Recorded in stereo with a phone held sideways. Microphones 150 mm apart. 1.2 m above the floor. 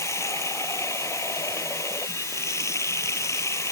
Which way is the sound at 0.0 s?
20° left (ahead or behind).